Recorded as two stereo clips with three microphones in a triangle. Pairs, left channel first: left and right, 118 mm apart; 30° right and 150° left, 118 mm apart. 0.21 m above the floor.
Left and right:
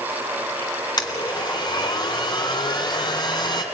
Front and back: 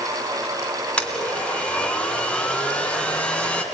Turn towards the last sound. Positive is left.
turn(degrees=45)